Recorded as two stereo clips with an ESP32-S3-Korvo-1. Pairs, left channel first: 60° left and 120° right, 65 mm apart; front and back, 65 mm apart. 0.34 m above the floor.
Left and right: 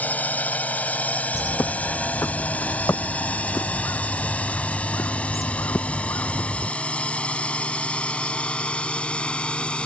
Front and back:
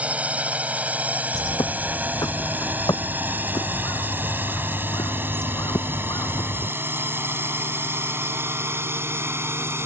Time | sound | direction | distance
0.0 | a drone | 115° left | ?
1.3 | a bird | 15° left | ?